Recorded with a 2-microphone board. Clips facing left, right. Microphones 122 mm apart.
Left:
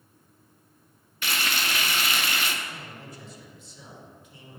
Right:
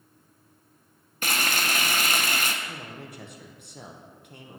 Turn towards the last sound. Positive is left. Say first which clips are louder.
# right 2 dB
turn(degrees=-60)  # may be behind; listen again after turning